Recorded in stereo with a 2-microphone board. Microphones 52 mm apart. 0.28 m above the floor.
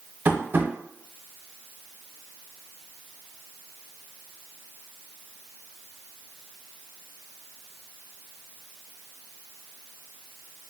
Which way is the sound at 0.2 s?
40° right (ahead or behind).